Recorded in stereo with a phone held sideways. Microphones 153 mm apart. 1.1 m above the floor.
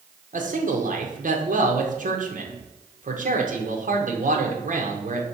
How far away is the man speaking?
About 0.9 m.